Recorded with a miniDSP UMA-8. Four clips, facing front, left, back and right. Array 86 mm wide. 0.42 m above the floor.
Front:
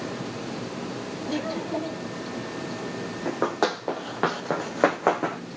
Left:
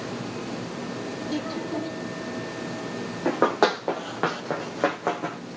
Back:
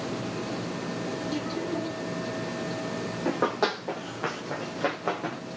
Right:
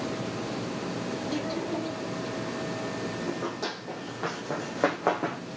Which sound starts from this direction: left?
Running footsteps, at 3.2 s.